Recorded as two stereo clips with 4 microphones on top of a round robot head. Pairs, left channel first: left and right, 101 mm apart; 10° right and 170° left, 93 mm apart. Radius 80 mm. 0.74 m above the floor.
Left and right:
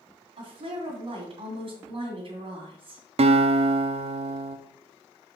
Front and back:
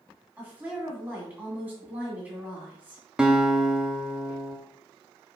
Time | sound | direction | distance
0.4 | a woman speaking | 110° right | 2.5 m
3.2 | a guitar | 110° right | 0.7 m